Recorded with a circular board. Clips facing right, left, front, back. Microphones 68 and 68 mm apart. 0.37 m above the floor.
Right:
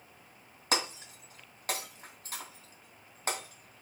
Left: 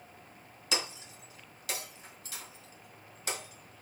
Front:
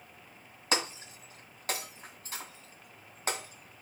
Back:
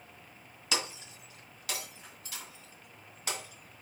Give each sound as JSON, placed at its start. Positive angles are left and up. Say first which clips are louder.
{"t": 0.7, "sound": "breaking glass", "louder": "right 3 dB, front 3 dB", "azimuth_deg": -50, "distance_m": 2.0}